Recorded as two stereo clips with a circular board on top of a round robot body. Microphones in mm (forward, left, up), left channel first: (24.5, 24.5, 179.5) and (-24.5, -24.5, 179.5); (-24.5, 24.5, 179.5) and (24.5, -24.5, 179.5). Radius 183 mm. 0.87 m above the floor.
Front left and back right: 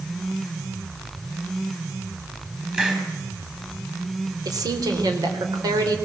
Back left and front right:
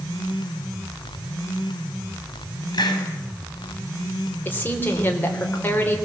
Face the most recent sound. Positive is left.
turn(degrees=-160)